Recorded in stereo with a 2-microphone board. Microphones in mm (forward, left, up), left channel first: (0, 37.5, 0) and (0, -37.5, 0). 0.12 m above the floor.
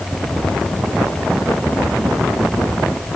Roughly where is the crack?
I don't hear a crack.